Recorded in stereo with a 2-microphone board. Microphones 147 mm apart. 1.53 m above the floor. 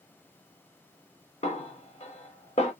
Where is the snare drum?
45° left (ahead or behind), 1.3 m.